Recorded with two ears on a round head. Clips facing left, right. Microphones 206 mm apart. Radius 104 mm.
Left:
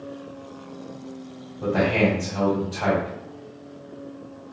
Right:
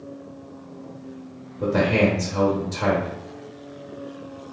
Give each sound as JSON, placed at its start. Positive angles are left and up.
{"t": 1.6, "sound": "a man speaking", "side_deg": -60, "distance_m": 1.3}